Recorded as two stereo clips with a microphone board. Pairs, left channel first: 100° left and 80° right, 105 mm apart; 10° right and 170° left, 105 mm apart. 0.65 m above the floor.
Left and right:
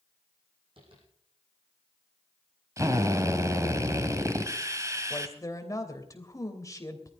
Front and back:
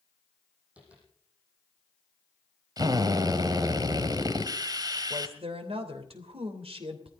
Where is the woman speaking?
155° left, 3 m.